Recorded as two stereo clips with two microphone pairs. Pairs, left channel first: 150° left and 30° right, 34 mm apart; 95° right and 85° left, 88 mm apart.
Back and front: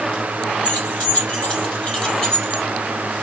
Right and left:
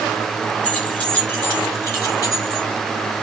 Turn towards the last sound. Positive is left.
turn(degrees=-140)